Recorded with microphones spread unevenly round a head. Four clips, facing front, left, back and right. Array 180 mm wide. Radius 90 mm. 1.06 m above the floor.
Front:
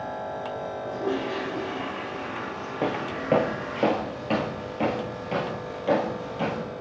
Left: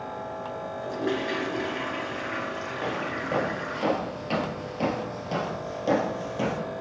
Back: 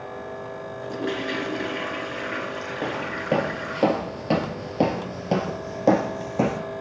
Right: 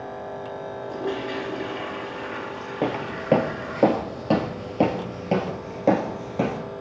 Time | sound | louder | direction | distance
0.8 | a toilet flushing | left 1 dB, back 1 dB | 165° left | 3.5 m
2.8 | footsteps | right 5 dB, front 3 dB | 80° right | 1.6 m